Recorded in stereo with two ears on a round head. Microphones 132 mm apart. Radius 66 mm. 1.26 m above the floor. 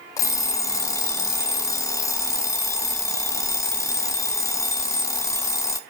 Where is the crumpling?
No crumpling in this recording.